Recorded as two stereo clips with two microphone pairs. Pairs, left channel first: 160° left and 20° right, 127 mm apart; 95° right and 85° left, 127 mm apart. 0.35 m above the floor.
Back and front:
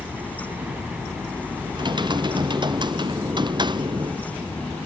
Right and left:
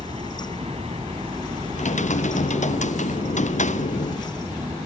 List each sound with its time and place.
0.0 s a helicopter: 55° left
1.8 s typing on a keyboard: 75° right